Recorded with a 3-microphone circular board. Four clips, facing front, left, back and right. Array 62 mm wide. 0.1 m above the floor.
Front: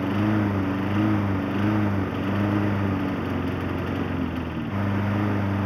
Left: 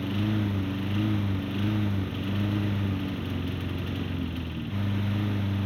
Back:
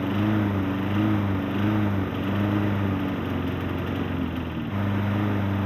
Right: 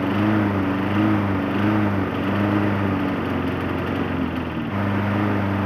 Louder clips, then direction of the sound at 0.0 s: Right 9 dB, front 1 dB; 80° right.